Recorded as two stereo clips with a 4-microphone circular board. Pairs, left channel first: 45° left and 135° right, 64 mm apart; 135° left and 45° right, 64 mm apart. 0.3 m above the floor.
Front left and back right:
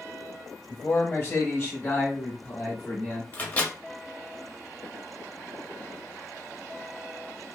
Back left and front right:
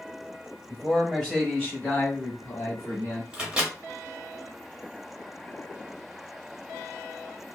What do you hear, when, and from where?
0.7 s a man speaking: 35° left, 1.1 m; by 3.2 s 110° left, 1.9 m
3.3 s a microwave: 15° left, 0.7 m